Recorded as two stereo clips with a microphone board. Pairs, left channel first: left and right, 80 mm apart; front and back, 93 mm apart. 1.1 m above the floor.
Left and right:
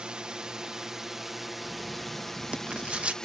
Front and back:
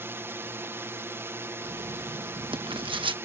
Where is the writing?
165° right.